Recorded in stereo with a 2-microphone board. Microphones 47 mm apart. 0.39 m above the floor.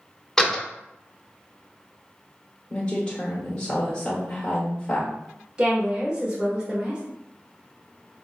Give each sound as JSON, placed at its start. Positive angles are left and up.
{"t": 0.4, "sound": "a door slam", "side_deg": 10, "distance_m": 0.6}
{"t": 2.7, "sound": "a woman speaking", "side_deg": 20, "distance_m": 1.0}
{"t": 5.6, "sound": "a woman speaking", "side_deg": -20, "distance_m": 1.0}